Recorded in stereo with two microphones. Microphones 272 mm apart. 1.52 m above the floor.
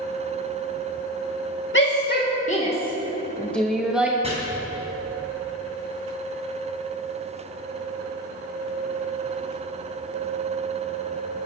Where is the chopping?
20° right (ahead or behind), 5 m.